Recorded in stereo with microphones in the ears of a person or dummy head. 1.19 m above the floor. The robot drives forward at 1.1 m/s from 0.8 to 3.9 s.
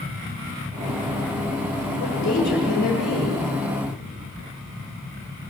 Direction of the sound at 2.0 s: 60° left (ahead or behind).